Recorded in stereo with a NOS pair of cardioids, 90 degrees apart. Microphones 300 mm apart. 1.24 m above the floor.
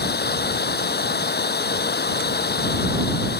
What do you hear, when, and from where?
0.0 s running water: 35° left